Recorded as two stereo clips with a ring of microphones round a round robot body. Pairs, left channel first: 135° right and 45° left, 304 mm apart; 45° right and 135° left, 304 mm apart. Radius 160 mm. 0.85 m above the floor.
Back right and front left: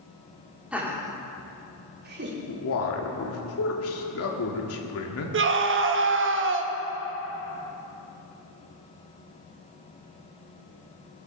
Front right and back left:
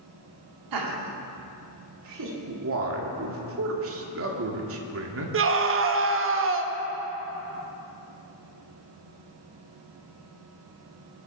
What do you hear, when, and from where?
0.7 s laughter: 130° left, 2.5 m; by 2.4 s 100° left, 2.5 m
2.5 s a man speaking: straight behind, 1.8 m
5.3 s a scream: 90° left, 1.2 m